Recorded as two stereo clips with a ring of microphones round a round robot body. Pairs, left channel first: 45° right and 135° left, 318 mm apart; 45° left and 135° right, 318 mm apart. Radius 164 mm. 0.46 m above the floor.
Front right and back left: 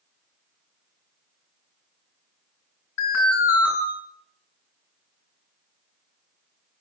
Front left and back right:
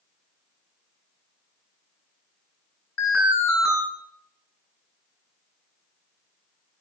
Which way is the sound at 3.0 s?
Straight ahead.